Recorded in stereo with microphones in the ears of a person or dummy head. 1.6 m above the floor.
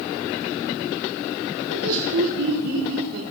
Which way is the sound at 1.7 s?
70° right (ahead or behind).